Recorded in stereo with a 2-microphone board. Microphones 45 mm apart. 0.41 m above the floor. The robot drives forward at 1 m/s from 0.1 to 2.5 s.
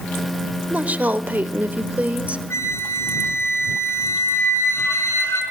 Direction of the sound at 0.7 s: 30° right (ahead or behind).